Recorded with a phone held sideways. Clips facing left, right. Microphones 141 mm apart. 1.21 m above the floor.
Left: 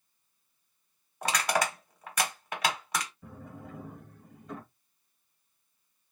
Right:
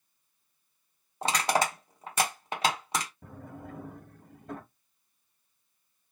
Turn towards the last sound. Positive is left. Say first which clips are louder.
# right 1 dB
turn(degrees=-50)  # may be behind; listen again after turning